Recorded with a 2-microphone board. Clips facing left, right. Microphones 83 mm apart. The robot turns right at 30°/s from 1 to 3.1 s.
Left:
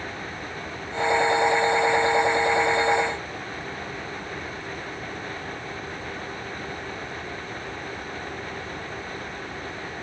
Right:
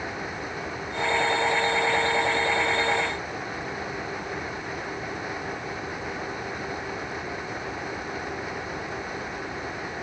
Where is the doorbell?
No doorbell in this recording.